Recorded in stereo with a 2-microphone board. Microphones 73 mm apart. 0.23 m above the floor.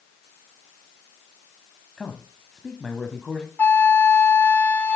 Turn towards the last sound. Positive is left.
turn(degrees=25)  # may be behind; listen again after turning